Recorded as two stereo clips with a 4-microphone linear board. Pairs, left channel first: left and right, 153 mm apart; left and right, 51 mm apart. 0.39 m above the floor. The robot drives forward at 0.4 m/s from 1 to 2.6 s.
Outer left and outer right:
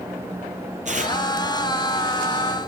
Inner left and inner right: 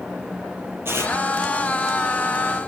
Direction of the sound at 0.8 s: 50° right (ahead or behind).